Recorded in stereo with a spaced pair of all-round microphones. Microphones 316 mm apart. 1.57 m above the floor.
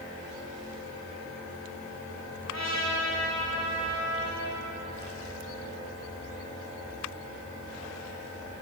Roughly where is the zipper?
No zipper in this recording.